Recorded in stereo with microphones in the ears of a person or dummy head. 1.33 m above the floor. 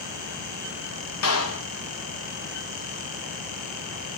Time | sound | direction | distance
1.2 | a clap | 80° left | 1.3 m